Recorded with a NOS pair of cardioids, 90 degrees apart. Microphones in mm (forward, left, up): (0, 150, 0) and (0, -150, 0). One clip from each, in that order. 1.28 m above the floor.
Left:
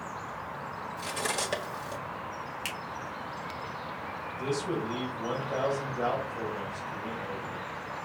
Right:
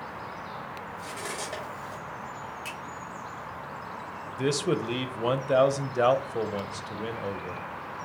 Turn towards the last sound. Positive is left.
turn(degrees=-60)